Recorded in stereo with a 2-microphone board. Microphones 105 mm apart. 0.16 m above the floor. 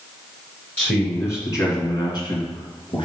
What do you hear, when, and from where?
0.8 s a man speaking: 15° left (ahead or behind), 1.9 m; by 3.0 s 55° left (ahead or behind), 2.5 m